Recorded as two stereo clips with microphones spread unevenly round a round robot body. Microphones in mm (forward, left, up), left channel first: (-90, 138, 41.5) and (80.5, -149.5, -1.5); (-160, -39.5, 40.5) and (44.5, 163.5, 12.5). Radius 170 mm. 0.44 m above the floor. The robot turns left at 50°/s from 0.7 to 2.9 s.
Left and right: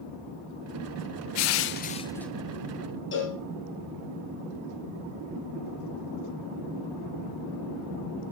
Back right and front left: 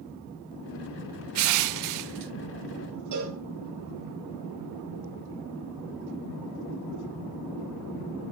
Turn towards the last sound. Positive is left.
turn(degrees=65)